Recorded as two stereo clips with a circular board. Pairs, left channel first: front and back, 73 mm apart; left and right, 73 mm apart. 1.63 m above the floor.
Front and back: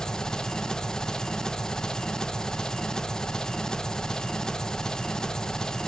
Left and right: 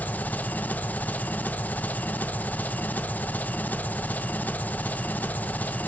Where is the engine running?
70° left, 0.8 m.